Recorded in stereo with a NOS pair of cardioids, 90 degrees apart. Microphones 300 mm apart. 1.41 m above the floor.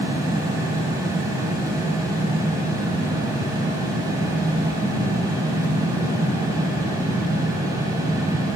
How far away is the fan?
About 0.8 m.